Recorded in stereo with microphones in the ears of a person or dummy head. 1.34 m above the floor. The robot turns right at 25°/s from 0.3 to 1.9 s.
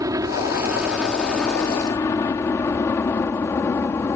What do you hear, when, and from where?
0.0 s a helicopter: 20° right (ahead or behind); by 4.2 s 15° left (ahead or behind)